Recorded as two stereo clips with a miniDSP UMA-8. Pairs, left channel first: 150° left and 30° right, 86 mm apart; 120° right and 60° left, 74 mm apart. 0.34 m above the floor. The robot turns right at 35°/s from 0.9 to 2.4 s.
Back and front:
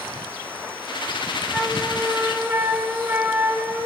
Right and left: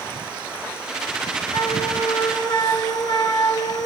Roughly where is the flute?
Behind right.